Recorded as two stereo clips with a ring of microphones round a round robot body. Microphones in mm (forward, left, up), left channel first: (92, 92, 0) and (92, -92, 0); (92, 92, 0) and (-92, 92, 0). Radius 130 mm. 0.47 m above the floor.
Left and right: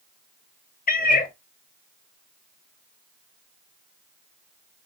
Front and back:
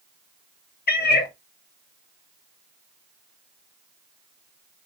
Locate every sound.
0.9 s a cat meowing: 40° left, 0.8 m